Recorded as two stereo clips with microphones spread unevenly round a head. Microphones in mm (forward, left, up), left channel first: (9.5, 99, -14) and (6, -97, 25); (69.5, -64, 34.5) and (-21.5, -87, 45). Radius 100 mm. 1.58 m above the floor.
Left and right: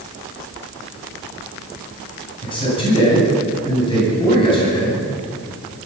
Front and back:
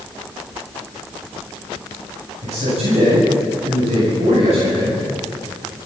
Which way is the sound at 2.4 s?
155° left.